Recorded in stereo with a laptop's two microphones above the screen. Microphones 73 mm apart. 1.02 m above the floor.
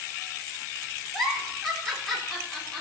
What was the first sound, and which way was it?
A giggle, 5° left (ahead or behind).